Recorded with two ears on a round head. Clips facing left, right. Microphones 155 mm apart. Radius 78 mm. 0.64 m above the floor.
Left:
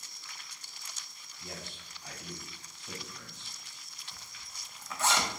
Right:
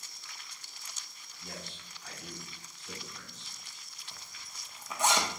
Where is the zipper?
15° right (ahead or behind), 0.7 m.